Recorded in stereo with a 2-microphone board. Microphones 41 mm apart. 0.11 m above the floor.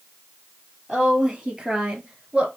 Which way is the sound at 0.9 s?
10° right (ahead or behind).